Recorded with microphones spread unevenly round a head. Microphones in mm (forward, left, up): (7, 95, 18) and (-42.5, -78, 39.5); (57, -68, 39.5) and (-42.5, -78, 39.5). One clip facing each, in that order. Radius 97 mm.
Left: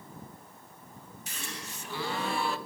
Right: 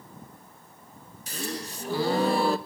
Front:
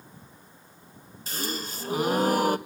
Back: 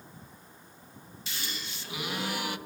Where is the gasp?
45° right, 0.7 m.